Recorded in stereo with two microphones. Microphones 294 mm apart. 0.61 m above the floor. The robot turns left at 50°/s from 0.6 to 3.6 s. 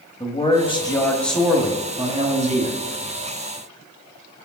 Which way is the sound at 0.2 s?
20° left (ahead or behind).